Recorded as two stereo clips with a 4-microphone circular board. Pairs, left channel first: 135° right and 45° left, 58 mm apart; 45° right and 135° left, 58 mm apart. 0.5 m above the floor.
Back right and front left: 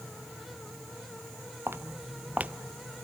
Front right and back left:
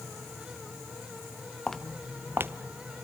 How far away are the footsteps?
About 0.6 m.